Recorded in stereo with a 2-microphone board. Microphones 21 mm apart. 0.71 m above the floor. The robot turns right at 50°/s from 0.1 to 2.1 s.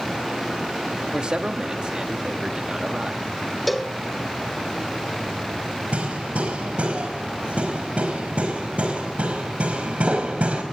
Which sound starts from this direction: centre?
A cowbell, at 3.7 s.